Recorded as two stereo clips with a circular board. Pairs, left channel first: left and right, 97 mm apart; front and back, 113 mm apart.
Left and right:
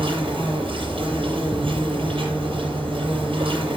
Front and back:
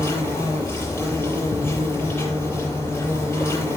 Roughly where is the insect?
Right.